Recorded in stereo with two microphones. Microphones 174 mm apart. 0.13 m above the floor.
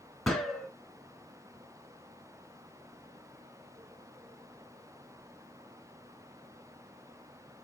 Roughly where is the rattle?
I don't hear a rattle.